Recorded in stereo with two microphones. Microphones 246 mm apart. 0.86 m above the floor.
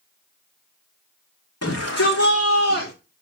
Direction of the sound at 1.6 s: 80° left.